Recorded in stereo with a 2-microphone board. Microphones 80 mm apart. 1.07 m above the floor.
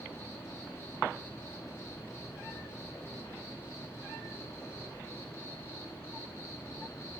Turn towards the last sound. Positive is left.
turn(degrees=35)  # may be behind; listen again after turning